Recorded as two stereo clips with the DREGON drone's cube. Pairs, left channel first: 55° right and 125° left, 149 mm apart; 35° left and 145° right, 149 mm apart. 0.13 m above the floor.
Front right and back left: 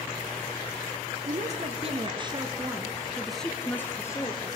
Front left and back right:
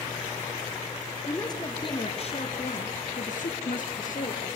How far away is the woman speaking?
About 3.5 m.